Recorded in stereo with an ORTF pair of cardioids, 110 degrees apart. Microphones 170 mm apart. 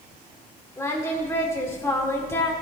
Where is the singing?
15° left, 2.5 m.